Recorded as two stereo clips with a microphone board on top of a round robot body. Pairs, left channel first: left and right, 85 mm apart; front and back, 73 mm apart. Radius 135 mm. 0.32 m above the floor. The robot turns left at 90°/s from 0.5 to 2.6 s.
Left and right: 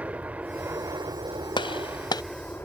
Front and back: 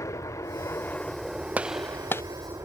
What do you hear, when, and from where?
0.0 s an aircraft: 20° right; by 2.6 s 150° left
1.6 s a gunshot: 110° left; by 2.2 s 50° left